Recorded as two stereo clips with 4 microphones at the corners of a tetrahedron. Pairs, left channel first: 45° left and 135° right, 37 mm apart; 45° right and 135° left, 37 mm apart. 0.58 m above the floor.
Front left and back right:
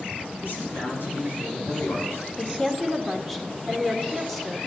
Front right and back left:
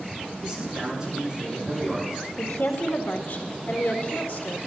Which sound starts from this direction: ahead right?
A woman speaking, at 2.4 s.